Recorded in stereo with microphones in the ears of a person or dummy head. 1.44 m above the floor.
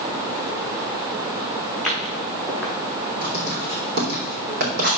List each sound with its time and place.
1.7 s footsteps: 5° left (ahead or behind), 3.5 m
3.2 s writing: 50° right (ahead or behind), 3 m